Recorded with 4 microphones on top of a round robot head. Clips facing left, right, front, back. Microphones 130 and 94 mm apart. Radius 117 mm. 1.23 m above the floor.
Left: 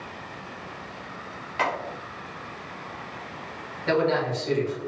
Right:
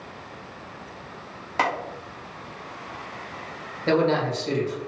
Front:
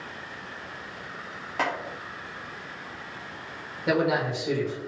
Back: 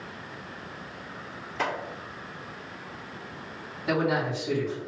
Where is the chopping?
40° right, 1.1 m.